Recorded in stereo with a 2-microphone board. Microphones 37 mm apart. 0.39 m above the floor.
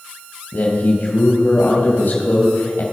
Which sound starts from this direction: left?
A man speaking, at 0.5 s.